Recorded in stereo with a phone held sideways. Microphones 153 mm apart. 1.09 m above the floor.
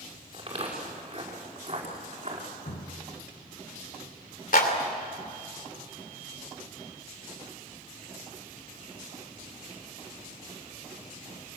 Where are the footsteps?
35° right (ahead or behind), 6.5 m; by 2.5 s 45° right (ahead or behind), 5 m.